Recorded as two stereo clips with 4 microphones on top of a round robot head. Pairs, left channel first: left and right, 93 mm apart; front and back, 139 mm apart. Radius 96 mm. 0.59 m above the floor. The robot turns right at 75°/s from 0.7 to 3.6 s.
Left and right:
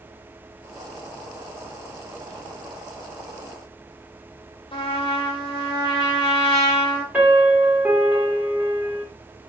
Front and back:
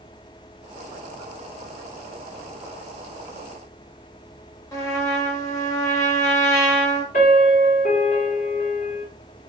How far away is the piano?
About 1.9 m.